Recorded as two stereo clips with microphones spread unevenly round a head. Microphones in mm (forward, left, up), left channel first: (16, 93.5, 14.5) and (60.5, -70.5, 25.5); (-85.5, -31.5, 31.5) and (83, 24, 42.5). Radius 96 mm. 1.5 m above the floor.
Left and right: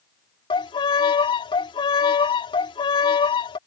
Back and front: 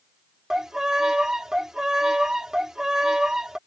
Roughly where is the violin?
Left.